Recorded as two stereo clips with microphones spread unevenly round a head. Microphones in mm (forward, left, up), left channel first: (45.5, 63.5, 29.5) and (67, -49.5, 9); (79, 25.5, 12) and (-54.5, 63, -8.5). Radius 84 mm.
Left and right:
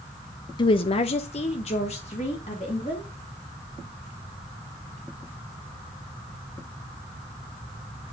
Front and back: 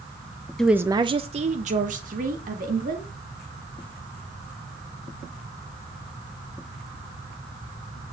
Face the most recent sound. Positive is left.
turn(degrees=155)